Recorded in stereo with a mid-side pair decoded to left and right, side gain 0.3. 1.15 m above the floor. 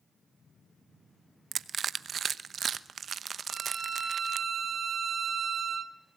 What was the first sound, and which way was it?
Crushing, 65° right.